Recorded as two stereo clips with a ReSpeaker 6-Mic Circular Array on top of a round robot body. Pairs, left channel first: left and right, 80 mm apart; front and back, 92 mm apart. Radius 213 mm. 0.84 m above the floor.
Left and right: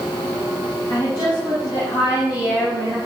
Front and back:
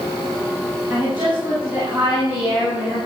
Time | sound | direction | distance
0.9 | a woman speaking | 135° left | 7.5 m